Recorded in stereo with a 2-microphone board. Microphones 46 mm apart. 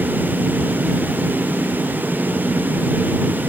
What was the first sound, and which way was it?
Only background noise.